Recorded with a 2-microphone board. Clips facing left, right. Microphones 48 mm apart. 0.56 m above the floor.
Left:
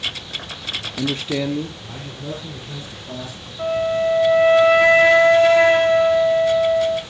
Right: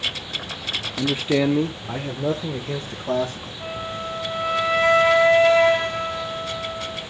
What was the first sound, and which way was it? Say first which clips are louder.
A man speaking: right 3 dB; 5° left (ahead or behind).